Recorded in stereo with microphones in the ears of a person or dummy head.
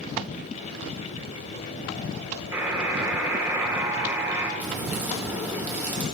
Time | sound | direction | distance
2.5 | a buzzer | 10° right (ahead or behind) | 1.2 m
4.6 | a crack | 15° right (ahead or behind) | 2.5 m